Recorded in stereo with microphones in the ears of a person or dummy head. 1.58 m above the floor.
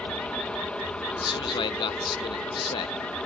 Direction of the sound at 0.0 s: 5° left (ahead or behind).